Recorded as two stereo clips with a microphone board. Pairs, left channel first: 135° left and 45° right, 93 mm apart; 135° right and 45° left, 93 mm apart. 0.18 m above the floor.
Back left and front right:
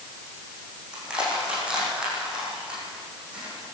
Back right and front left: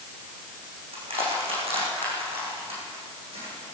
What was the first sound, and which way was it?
Crushing, 35° left.